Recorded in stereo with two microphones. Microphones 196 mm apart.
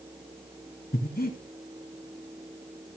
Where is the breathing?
50° left (ahead or behind), 2 m.